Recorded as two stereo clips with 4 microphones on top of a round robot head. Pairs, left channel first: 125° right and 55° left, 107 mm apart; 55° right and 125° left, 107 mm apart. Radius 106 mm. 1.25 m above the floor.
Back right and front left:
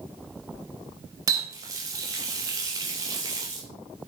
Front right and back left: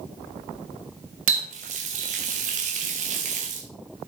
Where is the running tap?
110° left, 0.7 m.